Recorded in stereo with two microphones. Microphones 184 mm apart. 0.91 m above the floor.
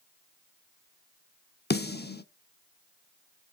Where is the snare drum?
60° left (ahead or behind), 0.8 m.